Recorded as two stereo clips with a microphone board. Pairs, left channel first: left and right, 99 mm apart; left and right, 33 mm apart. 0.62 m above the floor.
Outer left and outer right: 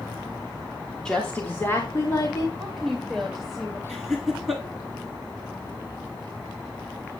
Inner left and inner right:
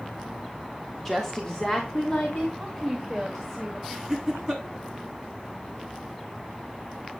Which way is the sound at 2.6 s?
5° left (ahead or behind).